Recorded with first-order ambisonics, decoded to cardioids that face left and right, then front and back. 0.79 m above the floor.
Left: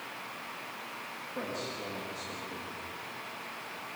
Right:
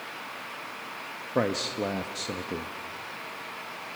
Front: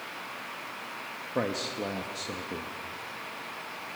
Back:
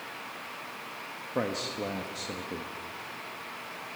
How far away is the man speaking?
About 0.9 m.